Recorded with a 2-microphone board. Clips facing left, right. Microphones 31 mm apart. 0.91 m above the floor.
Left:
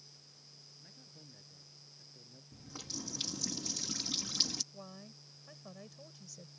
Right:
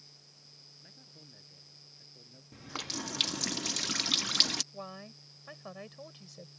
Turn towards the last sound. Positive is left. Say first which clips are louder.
# right 6 dB
turn(degrees=-45)  # may be behind; listen again after turning